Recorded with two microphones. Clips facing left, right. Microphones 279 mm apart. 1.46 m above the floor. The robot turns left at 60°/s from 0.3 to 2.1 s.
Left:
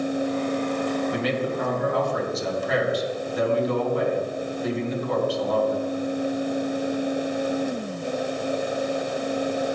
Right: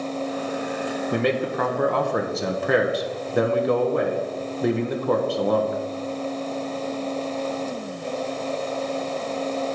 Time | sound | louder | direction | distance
1.1 | a man speaking | right 2 dB | 55° right | 1.1 m